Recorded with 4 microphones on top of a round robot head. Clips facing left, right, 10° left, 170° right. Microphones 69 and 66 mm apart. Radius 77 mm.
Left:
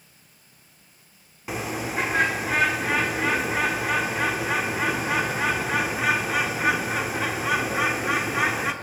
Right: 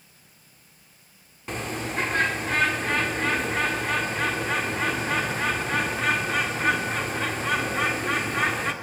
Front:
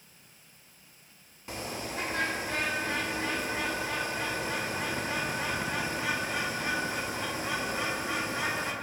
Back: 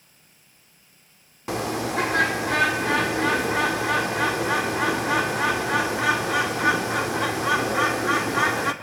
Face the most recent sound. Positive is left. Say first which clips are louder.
# left 2 dB, back 11 dB
turn(degrees=175)